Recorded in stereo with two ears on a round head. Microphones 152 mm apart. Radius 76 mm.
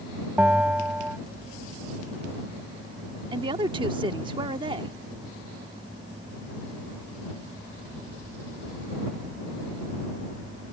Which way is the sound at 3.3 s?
30° right (ahead or behind).